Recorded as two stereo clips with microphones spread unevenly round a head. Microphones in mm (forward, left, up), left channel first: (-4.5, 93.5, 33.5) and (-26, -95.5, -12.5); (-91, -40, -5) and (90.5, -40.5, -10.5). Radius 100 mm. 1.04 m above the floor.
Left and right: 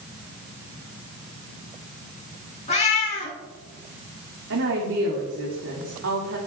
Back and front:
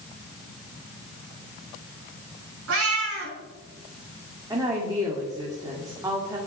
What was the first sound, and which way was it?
A cat meowing, 25° left.